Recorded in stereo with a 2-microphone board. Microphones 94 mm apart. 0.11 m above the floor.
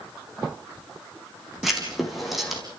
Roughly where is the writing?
Centre.